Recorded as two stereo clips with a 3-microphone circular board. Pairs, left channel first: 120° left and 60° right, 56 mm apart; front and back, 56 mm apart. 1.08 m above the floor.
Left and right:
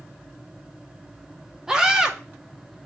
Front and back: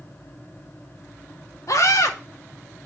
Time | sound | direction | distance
1.7 | a scream | 15° left | 2.5 m